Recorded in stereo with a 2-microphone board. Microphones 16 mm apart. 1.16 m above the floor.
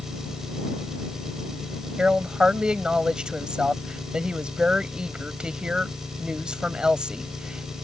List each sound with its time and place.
0.0 s an engine running: 30° right (ahead or behind)
2.0 s a woman speaking: 60° right (ahead or behind)